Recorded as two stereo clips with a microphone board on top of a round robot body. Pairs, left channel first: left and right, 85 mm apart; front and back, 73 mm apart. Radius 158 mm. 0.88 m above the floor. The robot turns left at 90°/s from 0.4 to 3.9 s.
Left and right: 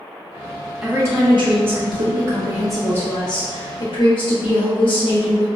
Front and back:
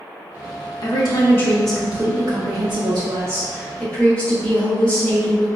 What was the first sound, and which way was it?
A woman speaking, 10° right.